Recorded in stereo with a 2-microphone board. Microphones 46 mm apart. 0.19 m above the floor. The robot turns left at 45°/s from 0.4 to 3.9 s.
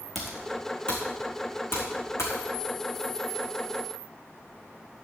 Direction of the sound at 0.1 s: Centre (ahead or behind).